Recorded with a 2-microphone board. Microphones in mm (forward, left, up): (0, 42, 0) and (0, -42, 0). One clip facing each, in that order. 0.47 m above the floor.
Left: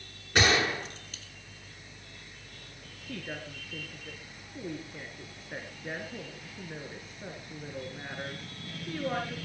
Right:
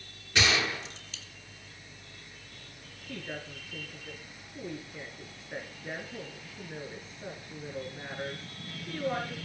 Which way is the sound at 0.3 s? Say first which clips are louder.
Left 3 dB; 45° left (ahead or behind).